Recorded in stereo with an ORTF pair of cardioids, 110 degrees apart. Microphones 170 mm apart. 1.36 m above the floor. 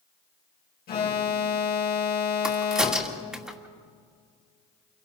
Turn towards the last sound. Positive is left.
turn(degrees=-5)